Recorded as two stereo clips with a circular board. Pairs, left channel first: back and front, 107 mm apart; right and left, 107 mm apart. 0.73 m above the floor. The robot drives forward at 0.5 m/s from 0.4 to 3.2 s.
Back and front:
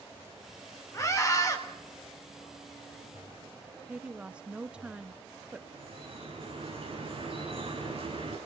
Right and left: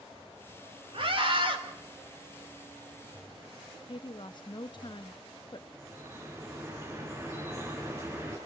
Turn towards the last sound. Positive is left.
turn(degrees=30)